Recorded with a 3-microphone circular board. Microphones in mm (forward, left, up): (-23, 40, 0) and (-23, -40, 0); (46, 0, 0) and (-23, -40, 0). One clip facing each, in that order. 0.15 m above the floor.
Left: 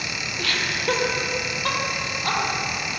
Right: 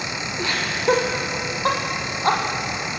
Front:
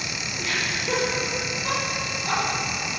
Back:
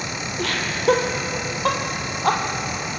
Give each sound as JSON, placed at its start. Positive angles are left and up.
{"t": 0.4, "sound": "laughter", "azimuth_deg": -160, "distance_m": 5.0}